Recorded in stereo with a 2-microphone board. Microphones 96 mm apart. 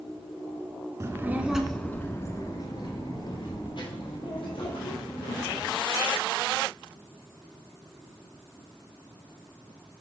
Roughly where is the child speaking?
Right.